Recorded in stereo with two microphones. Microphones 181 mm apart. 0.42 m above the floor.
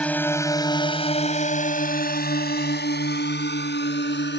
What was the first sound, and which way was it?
A drone, 5° left (ahead or behind).